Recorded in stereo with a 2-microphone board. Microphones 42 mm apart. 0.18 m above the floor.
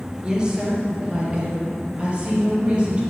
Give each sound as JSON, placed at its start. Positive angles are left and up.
{"t": 0.2, "sound": "a woman speaking", "side_deg": -20, "distance_m": 3.0}